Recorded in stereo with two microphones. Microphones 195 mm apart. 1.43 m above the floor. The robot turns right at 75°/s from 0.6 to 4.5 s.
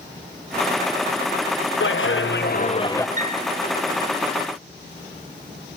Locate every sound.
1.8 s a clap: 75° left, 1.0 m; by 3.1 s 170° left, 1.0 m
3.2 s a piano: 45° right (ahead or behind), 1.8 m; by 3.5 s 30° right (ahead or behind), 1.8 m